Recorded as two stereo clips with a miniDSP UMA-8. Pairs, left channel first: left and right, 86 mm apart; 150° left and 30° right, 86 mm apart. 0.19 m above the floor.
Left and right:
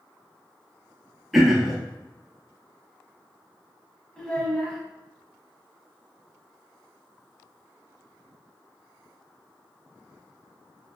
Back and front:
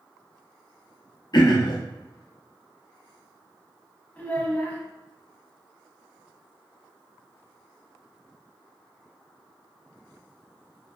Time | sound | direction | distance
1.3 | throat clearing | straight behind | 0.6 m
4.2 | a child speaking | 145° left | 0.6 m